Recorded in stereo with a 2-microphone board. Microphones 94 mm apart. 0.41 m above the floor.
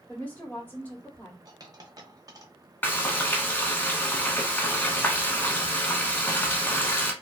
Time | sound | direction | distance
0.1 | a woman speaking | 15° left (ahead or behind) | 0.9 m
1.4 | a dropped coin | 40° right (ahead or behind) | 0.6 m
2.8 | frying | 20° left (ahead or behind) | 0.7 m